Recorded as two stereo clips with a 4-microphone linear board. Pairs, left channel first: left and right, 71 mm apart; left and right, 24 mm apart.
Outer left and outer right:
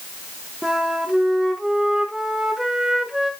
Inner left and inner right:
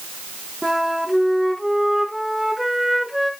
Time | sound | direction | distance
0.6 | a flute | 10° right (ahead or behind) | 1.4 m